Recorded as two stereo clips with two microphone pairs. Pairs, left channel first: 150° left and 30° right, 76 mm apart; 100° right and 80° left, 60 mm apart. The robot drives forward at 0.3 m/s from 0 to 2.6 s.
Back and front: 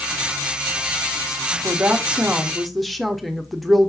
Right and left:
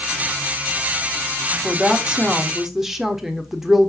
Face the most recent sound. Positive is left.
turn(degrees=50)